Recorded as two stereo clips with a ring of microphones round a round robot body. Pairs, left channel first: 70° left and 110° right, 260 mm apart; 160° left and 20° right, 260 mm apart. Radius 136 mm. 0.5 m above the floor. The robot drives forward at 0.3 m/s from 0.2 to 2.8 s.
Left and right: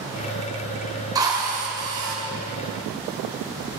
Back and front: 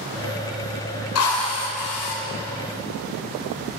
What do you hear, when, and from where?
1.1 s a drill: 175° left, 3 m